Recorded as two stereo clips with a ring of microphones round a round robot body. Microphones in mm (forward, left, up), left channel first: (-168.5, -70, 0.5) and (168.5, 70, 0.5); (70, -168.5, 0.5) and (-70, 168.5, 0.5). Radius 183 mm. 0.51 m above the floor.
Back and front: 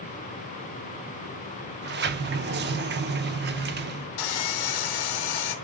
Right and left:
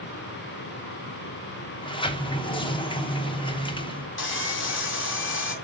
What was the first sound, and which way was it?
A sliding door, 5° right.